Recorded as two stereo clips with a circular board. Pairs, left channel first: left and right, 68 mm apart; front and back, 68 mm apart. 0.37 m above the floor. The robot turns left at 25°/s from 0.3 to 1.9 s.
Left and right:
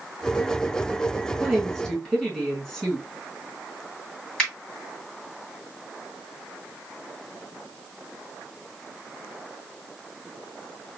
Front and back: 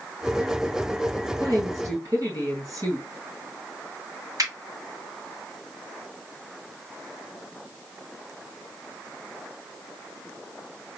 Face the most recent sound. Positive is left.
turn(degrees=165)